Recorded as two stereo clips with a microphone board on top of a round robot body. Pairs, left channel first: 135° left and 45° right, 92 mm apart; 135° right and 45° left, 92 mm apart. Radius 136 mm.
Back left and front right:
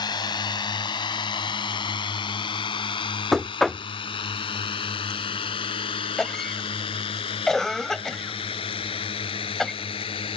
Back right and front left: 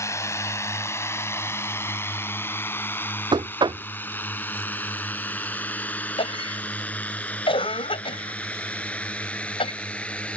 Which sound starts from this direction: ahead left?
Knocking, at 3.3 s.